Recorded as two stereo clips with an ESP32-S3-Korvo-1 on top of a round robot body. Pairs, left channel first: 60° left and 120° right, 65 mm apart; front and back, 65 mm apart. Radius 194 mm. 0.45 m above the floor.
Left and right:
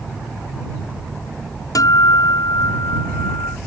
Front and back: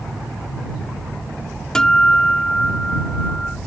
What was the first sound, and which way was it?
A guitar, 80° left.